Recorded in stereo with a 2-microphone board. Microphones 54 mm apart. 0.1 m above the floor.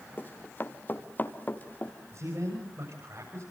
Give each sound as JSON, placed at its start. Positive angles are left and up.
{"t": 0.2, "sound": "running footsteps", "side_deg": 35, "distance_m": 2.5}
{"t": 2.1, "sound": "a man speaking", "side_deg": -55, "distance_m": 9.5}